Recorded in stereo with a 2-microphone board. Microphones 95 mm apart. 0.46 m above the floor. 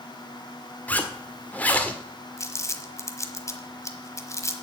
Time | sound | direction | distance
0.9 | a zipper | 15° left (ahead or behind) | 1.5 m
2.4 | crumpling | 30° left (ahead or behind) | 1.2 m